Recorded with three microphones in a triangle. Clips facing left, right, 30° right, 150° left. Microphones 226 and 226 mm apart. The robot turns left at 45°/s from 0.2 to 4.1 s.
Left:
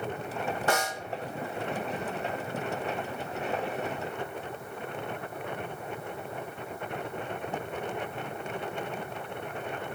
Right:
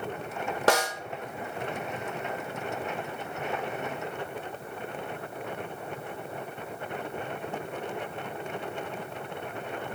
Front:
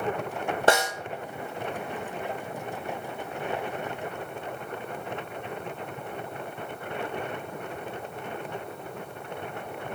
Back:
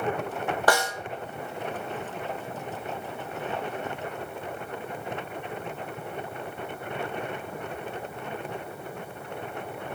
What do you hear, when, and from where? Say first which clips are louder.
0.7 s a snare drum: right 6 dB, front 2 dB; 100° right, 1.0 m; by 0.9 s 110° right, 1.0 m